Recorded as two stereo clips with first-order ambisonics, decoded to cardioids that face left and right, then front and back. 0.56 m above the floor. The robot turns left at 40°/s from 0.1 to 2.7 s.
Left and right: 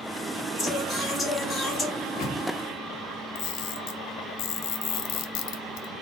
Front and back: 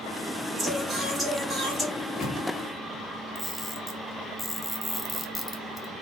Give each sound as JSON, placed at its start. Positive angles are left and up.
{"t": 0.6, "sound": "singing", "azimuth_deg": 115, "distance_m": 1.3}
{"t": 1.9, "sound": "a microwave", "azimuth_deg": 60, "distance_m": 1.5}
{"t": 3.4, "sound": "a camera shutter", "azimuth_deg": 80, "distance_m": 0.7}